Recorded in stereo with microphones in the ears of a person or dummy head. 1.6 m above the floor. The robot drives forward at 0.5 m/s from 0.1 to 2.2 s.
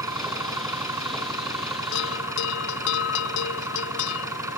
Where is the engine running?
10° right (ahead or behind).